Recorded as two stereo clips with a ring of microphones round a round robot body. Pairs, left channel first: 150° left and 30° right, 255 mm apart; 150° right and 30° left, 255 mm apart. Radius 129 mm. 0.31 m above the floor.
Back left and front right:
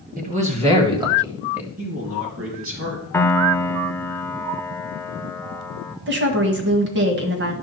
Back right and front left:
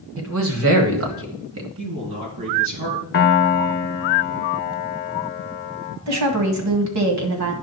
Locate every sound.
0.2 s a man speaking: 20° left, 1.8 m; by 1.7 s 55° left, 1.8 m
1.8 s a man speaking: 10° left, 4 m
3.1 s a piano: 130° right, 0.7 m
6.1 s a woman speaking: 15° left, 1.9 m